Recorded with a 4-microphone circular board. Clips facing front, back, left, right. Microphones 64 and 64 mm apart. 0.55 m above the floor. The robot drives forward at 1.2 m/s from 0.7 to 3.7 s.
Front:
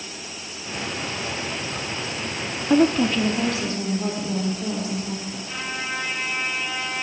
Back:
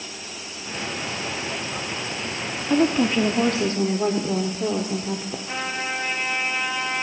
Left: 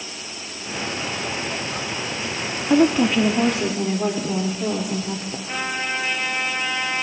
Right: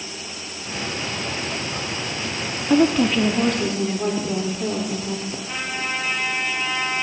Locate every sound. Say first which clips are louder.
2.7 s a woman speaking: front 2 dB, even; 25° left, 0.7 m; by 5.4 s 175° left, 1.2 m
5.5 s a trumpet: back 2 dB, left 3 dB; 170° left, 7.5 m